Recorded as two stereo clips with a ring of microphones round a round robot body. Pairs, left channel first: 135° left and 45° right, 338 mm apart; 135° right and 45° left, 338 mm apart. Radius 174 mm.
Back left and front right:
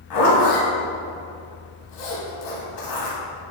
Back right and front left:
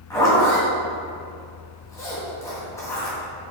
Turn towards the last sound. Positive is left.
turn(degrees=145)